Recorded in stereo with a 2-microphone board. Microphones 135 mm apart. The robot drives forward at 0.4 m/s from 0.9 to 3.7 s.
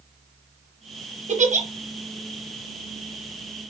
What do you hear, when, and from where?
1.3 s a giggle: 60° right (ahead or behind), 0.7 m